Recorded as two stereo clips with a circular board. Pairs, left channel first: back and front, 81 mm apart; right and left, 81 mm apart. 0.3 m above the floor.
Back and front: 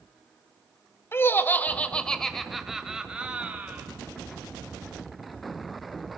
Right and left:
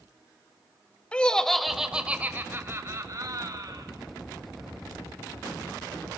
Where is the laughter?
155° right, 1.0 m; by 3.9 s 65° left, 1.5 m.